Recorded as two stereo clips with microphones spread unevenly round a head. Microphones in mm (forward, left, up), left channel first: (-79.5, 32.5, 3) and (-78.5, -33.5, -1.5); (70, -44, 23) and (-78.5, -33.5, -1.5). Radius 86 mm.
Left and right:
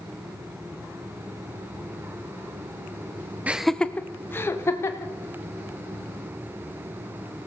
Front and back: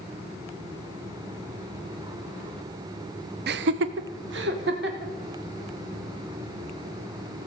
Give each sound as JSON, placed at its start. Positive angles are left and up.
{"t": 3.5, "sound": "laughter", "azimuth_deg": -160, "distance_m": 0.6}